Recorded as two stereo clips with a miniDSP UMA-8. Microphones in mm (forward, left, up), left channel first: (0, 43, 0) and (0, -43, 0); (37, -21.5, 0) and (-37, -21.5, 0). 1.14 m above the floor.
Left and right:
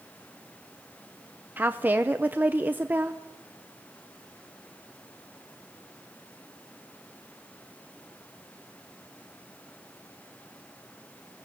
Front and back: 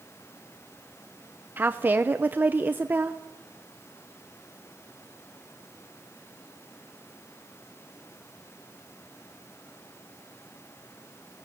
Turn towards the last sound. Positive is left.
turn(degrees=-140)